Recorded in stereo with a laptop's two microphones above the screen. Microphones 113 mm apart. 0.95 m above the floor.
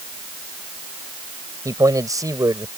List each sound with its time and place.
1.6 s a man speaking: 30° right (ahead or behind)